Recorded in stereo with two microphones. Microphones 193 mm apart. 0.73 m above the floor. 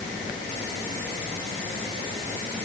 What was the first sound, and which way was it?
Only background noise.